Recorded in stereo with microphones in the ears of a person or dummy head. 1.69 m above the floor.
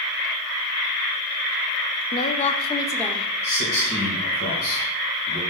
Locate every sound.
2.1 s a woman speaking: 55° left (ahead or behind), 0.7 m; by 3.3 s centre (ahead or behind), 0.7 m
3.4 s a man speaking: 50° left (ahead or behind), 1.9 m